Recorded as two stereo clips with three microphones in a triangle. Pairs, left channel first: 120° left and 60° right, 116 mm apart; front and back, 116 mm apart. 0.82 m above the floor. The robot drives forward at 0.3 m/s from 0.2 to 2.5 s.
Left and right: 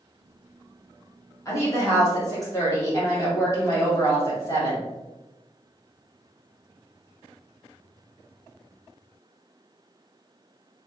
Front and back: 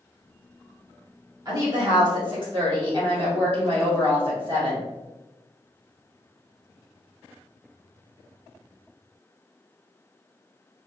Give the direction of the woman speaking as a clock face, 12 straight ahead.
7 o'clock.